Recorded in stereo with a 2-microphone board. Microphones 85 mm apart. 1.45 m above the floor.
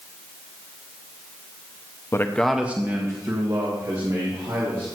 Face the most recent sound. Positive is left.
turn(degrees=-55)  # may be behind; listen again after turning